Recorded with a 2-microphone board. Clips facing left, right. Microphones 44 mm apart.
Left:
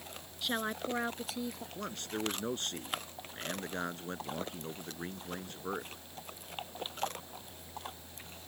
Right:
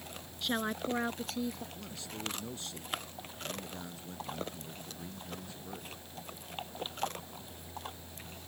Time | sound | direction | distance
0.4 | a woman speaking | centre (ahead or behind) | ?
1.8 | a man speaking | 60° left (ahead or behind) | ?